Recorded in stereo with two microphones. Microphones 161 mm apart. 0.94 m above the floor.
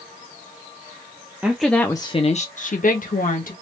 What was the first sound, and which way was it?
A woman speaking, 10° right (ahead or behind).